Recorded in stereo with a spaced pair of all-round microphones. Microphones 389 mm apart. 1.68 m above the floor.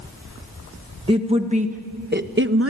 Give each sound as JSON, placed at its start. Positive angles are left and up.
{"t": 1.1, "sound": "a woman speaking", "side_deg": -15, "distance_m": 1.6}